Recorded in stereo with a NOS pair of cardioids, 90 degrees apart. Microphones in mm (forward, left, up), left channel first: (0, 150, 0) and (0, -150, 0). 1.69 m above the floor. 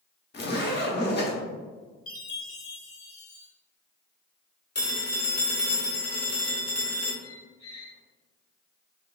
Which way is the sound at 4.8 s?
35° left.